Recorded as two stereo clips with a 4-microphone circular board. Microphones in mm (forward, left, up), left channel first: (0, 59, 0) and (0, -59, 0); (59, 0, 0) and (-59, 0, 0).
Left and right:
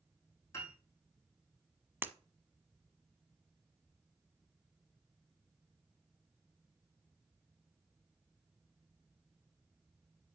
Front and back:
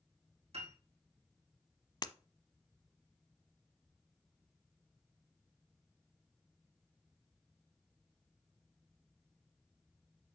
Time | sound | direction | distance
0.5 | a piano | 155° left | 4 m
2.0 | breaking glass | 25° right | 0.6 m